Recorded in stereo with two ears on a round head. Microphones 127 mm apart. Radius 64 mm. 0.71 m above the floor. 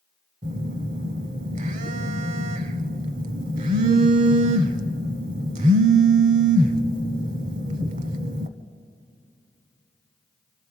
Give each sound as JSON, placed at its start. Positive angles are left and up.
{"t": 0.4, "sound": "a phone buzzing", "side_deg": -55, "distance_m": 0.9}